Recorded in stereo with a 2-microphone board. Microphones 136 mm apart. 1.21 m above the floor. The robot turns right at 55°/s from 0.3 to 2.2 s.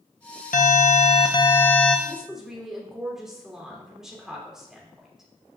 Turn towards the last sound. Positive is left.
turn(degrees=-5)  # may be behind; listen again after turning